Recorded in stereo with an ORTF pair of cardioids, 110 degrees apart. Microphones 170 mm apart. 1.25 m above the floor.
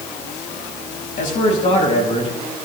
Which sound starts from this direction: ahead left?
A man speaking, at 1.2 s.